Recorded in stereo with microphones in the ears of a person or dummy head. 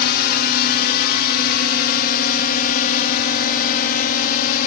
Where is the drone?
50° left (ahead or behind); by 4.7 s 45° left (ahead or behind).